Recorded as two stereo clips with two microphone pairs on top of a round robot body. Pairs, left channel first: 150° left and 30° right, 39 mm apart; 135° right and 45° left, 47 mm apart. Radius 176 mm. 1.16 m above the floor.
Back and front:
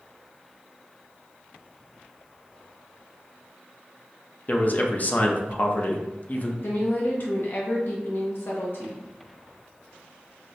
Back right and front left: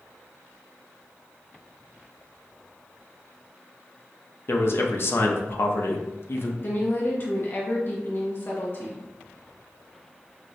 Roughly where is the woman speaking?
Behind.